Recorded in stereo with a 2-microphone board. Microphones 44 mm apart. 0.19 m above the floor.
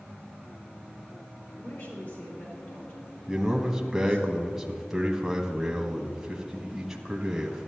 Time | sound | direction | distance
1.6 | a woman speaking | 65° left (ahead or behind) | 4 m
3.3 | a man speaking | 10° right (ahead or behind) | 1.2 m